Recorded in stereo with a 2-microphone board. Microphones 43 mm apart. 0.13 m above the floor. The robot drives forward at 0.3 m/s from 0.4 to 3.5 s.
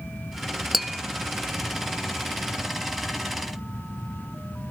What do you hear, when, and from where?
0.7 s tapping: centre (ahead or behind), 0.7 m